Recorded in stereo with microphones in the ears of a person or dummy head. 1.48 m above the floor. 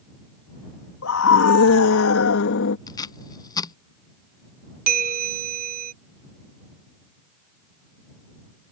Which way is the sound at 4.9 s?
45° right (ahead or behind).